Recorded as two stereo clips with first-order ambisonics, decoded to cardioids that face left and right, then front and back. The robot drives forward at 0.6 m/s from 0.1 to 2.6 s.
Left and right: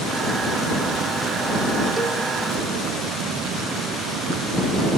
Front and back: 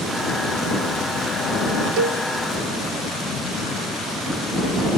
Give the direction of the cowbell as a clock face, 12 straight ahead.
6 o'clock.